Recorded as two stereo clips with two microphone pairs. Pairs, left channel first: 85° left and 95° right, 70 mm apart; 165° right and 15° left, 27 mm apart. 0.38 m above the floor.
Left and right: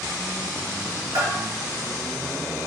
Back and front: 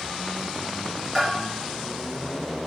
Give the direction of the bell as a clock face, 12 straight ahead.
3 o'clock.